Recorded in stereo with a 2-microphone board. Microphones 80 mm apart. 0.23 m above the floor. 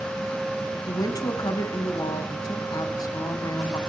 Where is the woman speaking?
55° left (ahead or behind), 1.5 m.